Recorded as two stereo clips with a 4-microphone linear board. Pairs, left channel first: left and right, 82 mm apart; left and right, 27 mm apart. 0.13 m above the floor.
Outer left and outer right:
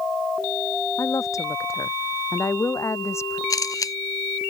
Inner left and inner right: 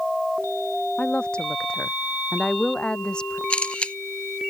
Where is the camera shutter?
45° left (ahead or behind).